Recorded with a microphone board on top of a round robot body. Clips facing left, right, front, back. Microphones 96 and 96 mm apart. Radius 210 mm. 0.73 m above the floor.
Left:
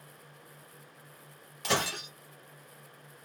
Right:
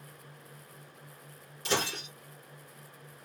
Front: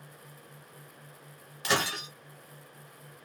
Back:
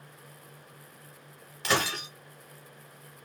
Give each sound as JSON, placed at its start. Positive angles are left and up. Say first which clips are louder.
{"t": 1.6, "sound": "breaking glass", "louder": "left 1 dB, back 1 dB", "azimuth_deg": 90, "distance_m": 0.9}